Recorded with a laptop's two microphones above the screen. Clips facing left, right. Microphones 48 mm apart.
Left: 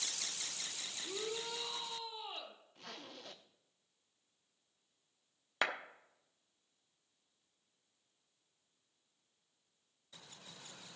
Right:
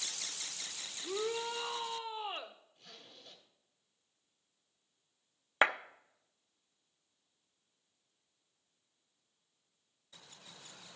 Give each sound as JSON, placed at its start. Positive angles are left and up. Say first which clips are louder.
{"t": 1.0, "sound": "a shout", "louder": "right 6 dB", "side_deg": -40, "distance_m": 0.9}
{"t": 2.8, "sound": "a zipper", "louder": "left 6 dB", "side_deg": 75, "distance_m": 0.8}
{"t": 5.6, "sound": "a clap", "louder": "right 7 dB", "side_deg": -30, "distance_m": 0.6}